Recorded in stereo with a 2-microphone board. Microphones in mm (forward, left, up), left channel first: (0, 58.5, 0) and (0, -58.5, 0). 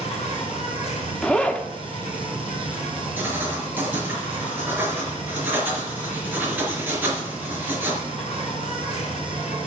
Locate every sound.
0.0 s an insect: 60° left (ahead or behind), 3.5 m
1.2 s a zipper: 10° left (ahead or behind), 1.0 m
3.2 s writing: 15° right (ahead or behind), 4.5 m